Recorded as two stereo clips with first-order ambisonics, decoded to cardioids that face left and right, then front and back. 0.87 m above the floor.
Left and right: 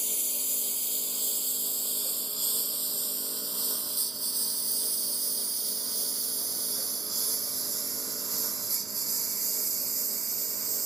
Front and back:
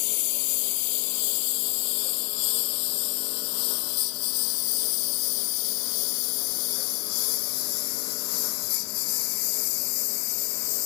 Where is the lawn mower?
5° left; by 10.9 s 15° right.